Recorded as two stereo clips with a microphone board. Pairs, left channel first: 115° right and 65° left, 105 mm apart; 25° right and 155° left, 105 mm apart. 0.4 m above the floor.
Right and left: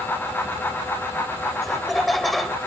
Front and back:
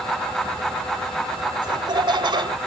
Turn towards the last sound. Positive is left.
turn(degrees=160)